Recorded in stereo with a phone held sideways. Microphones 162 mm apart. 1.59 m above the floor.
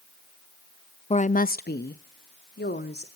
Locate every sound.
1.1 s a woman speaking: 40° left (ahead or behind), 0.6 m; by 3.1 s 80° left, 1.8 m